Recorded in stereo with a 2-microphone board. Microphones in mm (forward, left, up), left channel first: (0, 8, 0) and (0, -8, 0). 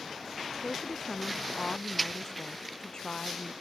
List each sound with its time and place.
0.6 s a woman speaking: 60° left (ahead or behind)